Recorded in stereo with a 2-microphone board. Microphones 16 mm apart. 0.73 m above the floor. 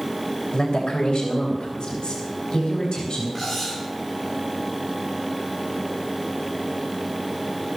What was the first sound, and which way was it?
A woman speaking, 45° left (ahead or behind).